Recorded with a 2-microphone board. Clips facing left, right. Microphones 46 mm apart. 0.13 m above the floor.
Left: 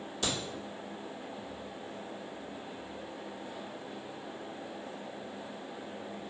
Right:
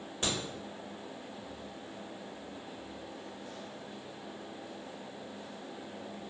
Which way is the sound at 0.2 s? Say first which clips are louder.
Even; 30° right (ahead or behind).